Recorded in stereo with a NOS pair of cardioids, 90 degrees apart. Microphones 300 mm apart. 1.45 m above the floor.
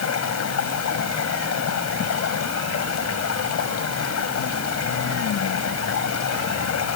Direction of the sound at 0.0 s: 60° left.